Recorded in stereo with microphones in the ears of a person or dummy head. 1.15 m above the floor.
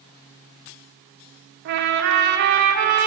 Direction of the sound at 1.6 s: 55° right (ahead or behind).